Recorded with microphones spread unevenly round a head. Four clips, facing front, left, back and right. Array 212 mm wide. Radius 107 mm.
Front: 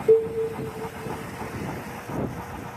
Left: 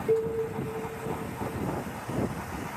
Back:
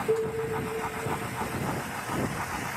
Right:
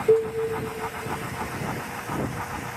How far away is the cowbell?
About 1.6 m.